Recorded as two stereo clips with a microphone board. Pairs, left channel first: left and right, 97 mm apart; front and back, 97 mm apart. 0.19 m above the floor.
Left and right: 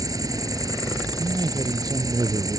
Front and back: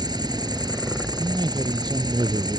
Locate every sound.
0.0 s an insect: 140° right
1.2 s a man speaking: 135° right